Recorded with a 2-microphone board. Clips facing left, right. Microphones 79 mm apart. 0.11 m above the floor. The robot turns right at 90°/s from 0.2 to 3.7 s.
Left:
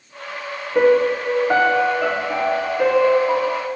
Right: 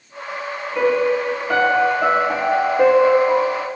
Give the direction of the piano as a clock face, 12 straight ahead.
9 o'clock.